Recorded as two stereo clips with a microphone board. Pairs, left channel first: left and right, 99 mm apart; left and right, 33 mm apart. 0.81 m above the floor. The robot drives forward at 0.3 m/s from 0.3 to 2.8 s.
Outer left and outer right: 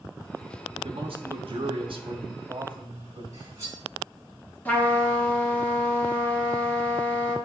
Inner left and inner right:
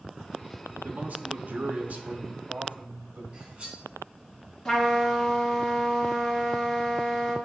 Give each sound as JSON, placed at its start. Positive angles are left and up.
{"t": 0.8, "sound": "a man speaking", "side_deg": -65, "distance_m": 1.1}
{"t": 3.3, "sound": "cutlery clinking", "side_deg": -35, "distance_m": 3.0}
{"t": 4.7, "sound": "a trumpet", "side_deg": 15, "distance_m": 1.6}